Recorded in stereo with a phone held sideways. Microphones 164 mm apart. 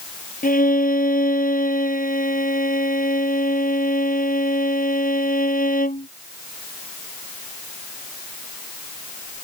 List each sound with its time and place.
0.4 s a violin: 60° left (ahead or behind)